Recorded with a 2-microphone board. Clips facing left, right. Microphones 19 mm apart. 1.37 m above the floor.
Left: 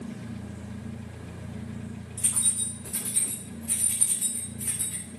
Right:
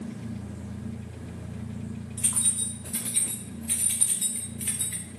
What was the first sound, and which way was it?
Keys jangling, 35° right (ahead or behind).